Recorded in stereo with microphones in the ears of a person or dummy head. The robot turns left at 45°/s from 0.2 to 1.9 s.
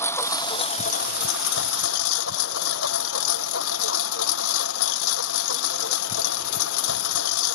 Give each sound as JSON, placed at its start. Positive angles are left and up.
{"t": 0.0, "sound": "a lawn mower", "azimuth_deg": 165}